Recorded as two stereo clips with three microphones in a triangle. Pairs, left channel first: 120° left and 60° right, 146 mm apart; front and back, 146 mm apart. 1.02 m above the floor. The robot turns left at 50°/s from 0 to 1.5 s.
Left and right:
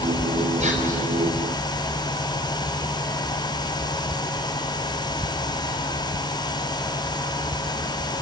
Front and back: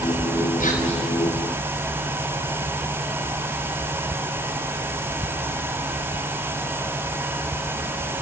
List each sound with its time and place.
0.6 s whispering: 25° right, 4.5 m; by 1.0 s 45° right, 4.5 m